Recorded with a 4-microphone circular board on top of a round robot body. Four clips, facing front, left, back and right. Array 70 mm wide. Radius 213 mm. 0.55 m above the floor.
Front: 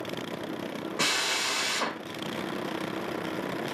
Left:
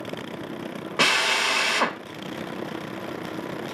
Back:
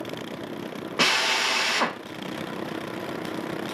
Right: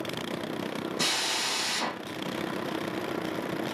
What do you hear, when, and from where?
1.0 s a drill: 120° left, 1.4 m